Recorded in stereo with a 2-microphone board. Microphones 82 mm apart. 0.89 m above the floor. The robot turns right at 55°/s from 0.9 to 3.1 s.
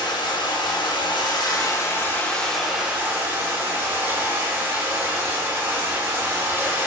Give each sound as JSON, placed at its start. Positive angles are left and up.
{"t": 0.0, "sound": "running water", "azimuth_deg": 90, "distance_m": 0.7}